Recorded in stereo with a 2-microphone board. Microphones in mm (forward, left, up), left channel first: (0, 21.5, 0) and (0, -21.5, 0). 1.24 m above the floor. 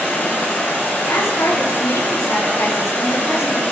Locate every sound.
0.0 s running water: 45° left (ahead or behind), 1.6 m
1.0 s a woman speaking: 85° left, 0.6 m